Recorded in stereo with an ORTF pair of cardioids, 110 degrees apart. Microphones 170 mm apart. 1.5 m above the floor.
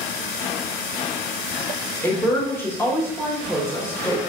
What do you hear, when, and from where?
2.0 s a woman speaking: 15° left, 0.9 m